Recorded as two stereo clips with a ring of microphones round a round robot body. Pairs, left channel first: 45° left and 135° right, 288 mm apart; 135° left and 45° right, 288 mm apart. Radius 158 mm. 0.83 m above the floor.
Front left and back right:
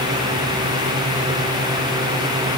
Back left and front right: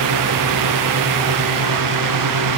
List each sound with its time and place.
Only background noise.